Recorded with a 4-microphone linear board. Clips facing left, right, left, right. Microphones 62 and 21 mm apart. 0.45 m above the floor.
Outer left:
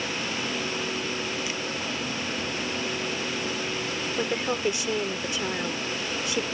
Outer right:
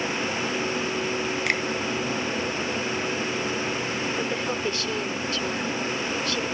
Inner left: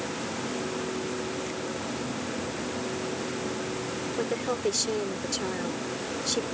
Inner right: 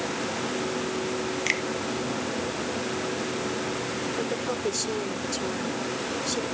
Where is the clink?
No clink in this recording.